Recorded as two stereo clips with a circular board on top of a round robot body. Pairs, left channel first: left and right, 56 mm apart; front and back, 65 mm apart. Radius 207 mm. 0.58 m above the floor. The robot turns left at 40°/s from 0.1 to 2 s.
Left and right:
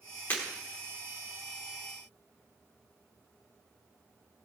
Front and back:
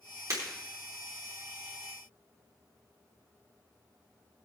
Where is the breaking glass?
145° left, 4.5 m; by 0.4 s 140° left, 4.5 m.